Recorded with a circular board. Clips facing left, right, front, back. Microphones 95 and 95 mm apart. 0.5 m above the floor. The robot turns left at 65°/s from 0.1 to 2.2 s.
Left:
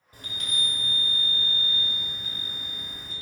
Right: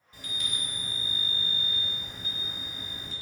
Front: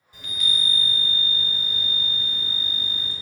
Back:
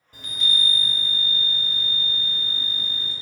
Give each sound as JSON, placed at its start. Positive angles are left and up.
{"t": 0.1, "sound": "a chime", "azimuth_deg": 135, "distance_m": 0.6}